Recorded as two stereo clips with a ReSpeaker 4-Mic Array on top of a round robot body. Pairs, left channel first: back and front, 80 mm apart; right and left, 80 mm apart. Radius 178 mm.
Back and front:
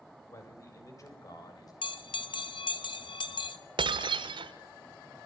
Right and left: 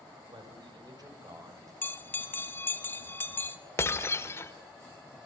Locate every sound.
0.3 s a man speaking: 125° left, 7.5 m; by 1.7 s 135° left, 8.5 m
1.8 s a bell: 155° right, 1.9 m
3.8 s breaking glass: 30° right, 1.5 m